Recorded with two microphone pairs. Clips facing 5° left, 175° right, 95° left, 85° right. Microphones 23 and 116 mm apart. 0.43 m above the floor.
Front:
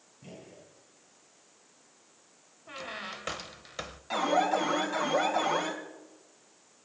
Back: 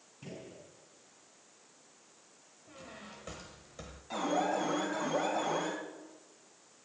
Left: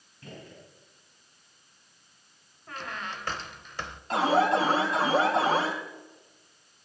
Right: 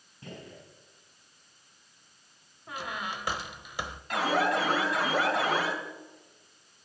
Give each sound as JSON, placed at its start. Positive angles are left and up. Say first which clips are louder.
{"t": 0.2, "sound": "a gunshot", "louder": "back 1 dB, right 1 dB", "azimuth_deg": -150, "distance_m": 5.5}
{"t": 2.7, "sound": "a squeak", "louder": "front 11 dB, right 1 dB", "azimuth_deg": 0, "distance_m": 0.9}
{"t": 4.1, "sound": "an alarm", "louder": "front 5 dB, left 4 dB", "azimuth_deg": 45, "distance_m": 2.5}